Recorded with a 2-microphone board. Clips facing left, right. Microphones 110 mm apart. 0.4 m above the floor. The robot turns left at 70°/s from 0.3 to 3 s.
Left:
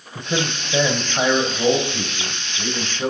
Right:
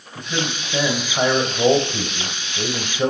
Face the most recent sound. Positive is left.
turn(degrees=-115)